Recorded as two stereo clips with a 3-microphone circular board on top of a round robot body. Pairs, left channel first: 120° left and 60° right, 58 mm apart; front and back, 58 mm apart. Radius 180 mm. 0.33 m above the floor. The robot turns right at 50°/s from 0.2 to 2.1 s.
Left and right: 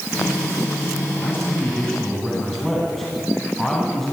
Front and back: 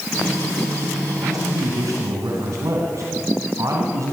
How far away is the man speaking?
About 3.5 m.